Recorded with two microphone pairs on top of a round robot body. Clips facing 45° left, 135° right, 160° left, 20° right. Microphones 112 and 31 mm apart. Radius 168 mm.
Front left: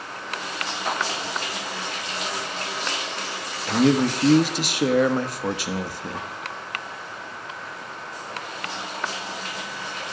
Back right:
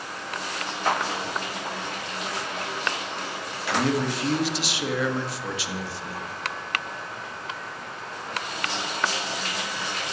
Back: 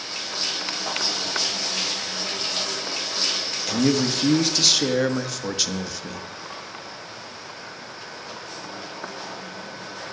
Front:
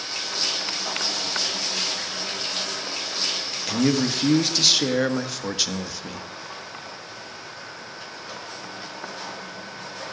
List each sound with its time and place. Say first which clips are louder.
3.7 s a man speaking: front left 5 dB, even; 55° left, 1.5 m